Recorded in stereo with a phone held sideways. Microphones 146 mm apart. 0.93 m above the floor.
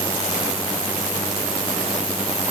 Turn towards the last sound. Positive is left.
No sound to turn to.